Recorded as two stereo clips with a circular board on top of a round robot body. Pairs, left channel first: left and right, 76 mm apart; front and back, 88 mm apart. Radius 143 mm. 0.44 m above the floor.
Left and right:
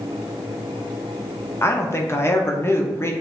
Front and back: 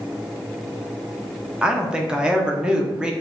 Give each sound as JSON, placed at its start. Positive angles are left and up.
{"t": 1.6, "sound": "a woman speaking", "azimuth_deg": 110, "distance_m": 1.0}